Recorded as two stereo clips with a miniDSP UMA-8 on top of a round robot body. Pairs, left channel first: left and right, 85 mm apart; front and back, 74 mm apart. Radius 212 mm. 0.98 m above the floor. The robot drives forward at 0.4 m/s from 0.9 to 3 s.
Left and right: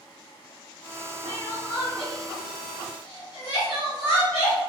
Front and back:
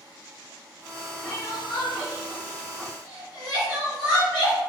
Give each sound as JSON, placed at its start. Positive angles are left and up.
{"t": 1.2, "sound": "crying", "azimuth_deg": 60, "distance_m": 1.5}